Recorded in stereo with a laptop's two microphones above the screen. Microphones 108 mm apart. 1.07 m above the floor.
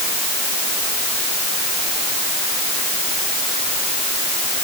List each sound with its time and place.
Only background noise.